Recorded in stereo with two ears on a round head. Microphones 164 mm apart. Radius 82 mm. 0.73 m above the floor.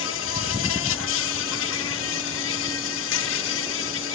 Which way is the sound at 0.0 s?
80° left.